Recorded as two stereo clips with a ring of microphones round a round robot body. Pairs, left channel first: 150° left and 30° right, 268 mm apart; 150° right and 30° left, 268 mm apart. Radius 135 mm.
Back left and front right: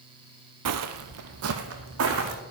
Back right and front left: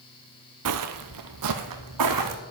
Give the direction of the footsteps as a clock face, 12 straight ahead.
12 o'clock.